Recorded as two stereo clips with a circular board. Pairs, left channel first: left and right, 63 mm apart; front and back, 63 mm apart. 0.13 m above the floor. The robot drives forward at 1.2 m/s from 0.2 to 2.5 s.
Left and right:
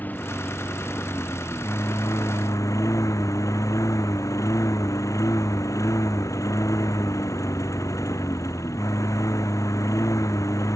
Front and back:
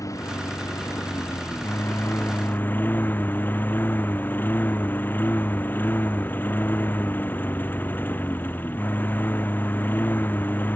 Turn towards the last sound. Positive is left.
turn(degrees=60)